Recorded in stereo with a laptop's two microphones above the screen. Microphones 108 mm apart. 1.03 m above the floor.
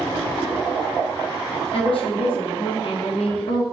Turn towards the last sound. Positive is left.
turn(degrees=55)  # may be behind; listen again after turning